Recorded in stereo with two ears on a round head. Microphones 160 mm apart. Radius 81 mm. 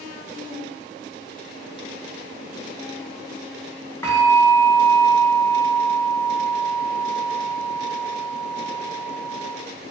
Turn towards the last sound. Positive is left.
turn(degrees=15)  # may be behind; listen again after turning